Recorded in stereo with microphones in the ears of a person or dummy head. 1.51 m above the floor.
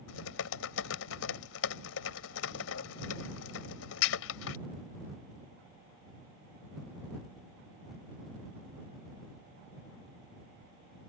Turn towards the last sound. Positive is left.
turn(degrees=70)  # may be behind; listen again after turning